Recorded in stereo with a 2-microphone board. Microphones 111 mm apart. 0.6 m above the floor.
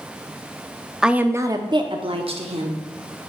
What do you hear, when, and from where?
1.0 s a woman speaking: 5° right (ahead or behind), 0.6 m; by 2.8 s 65° right (ahead or behind), 1.3 m